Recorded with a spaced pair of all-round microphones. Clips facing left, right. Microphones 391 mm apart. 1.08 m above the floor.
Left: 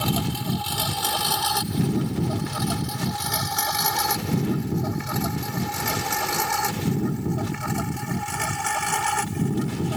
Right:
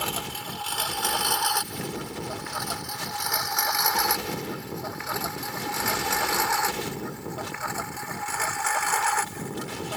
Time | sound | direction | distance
0.0 | a lawn mower | 55° left (ahead or behind) | ?